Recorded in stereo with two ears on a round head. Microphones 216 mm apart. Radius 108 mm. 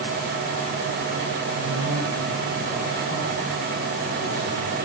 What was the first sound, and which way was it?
A man speaking, 30° right (ahead or behind).